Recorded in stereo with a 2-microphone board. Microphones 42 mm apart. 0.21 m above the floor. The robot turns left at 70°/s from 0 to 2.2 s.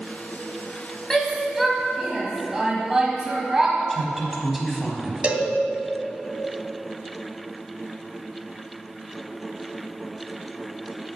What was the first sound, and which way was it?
A shout, 10° left (ahead or behind).